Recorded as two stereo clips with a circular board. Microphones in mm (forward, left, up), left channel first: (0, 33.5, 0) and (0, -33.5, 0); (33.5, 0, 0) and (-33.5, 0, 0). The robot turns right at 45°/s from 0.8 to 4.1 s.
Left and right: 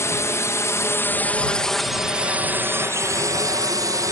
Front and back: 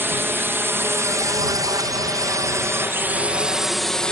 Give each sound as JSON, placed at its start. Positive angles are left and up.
{"t": 0.0, "sound": "a drone", "azimuth_deg": 130}